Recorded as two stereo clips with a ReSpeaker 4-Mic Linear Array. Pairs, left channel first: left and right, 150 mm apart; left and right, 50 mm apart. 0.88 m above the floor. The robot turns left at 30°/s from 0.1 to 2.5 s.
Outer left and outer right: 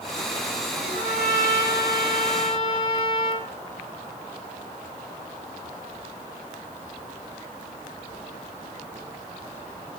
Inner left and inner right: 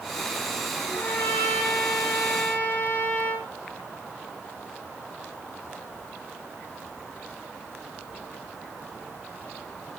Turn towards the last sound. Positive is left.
turn(degrees=35)